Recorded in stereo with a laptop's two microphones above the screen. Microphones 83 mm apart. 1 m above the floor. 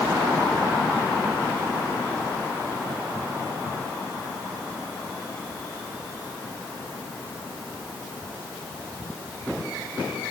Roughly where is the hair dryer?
No hair dryer in this recording.